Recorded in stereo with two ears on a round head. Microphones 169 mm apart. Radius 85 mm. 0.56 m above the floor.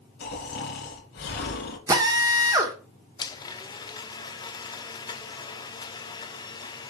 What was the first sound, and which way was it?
Snoring, 60° left (ahead or behind).